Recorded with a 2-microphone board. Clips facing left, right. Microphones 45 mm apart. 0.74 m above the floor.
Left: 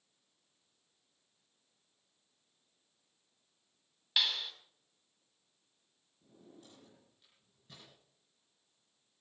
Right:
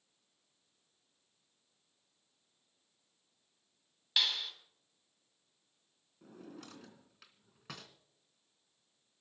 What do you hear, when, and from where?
4.2 s a clap: 5° left (ahead or behind), 5 m
6.2 s a drawer: 75° right (ahead or behind), 2.5 m